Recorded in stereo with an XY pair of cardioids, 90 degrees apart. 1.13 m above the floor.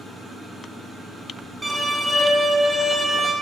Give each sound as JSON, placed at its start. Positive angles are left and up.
{"t": 1.6, "sound": "a violin", "azimuth_deg": -5, "distance_m": 1.6}